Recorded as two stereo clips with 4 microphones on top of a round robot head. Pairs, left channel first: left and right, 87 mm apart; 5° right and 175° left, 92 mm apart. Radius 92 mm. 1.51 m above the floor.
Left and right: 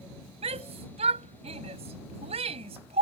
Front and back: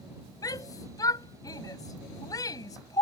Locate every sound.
0.4 s a shout: 65° right